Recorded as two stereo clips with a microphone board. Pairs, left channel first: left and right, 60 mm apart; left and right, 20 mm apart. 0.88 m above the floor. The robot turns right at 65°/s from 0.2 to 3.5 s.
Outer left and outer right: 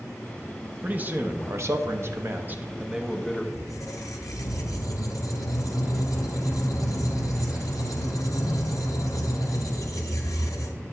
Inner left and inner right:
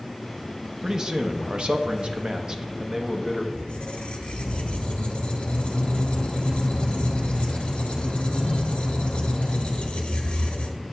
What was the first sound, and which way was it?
A man speaking, 150° right.